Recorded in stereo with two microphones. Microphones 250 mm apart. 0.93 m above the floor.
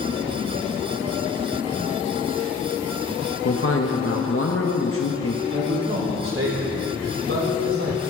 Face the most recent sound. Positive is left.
turn(degrees=-60)  # may be behind; listen again after turning